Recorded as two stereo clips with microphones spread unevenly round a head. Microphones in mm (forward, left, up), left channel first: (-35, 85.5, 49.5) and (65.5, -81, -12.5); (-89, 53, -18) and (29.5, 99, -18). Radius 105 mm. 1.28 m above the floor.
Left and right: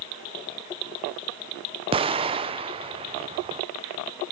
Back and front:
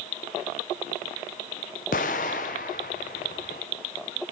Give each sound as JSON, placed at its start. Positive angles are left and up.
{"t": 1.9, "sound": "an explosion", "azimuth_deg": -115, "distance_m": 0.6}